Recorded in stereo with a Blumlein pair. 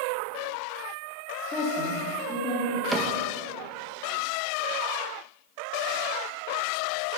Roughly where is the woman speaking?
Ahead left.